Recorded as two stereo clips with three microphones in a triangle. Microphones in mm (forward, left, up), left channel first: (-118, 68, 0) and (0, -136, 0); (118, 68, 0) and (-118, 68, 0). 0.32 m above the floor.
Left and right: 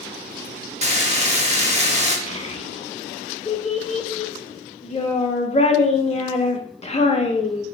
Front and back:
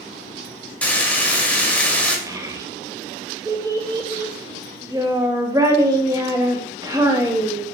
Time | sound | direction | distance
0.8 | frying | 80° right | 0.8 m
2.3 | a child speaking | 125° left | 0.6 m